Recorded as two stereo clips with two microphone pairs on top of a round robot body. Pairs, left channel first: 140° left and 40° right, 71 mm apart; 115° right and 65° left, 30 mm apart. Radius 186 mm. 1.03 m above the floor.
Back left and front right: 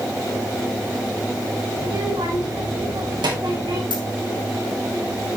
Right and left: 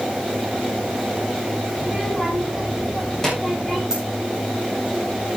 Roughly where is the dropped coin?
Behind left.